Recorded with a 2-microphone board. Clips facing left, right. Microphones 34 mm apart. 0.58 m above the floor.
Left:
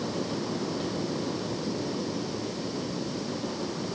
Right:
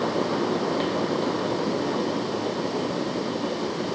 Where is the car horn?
I don't hear a car horn.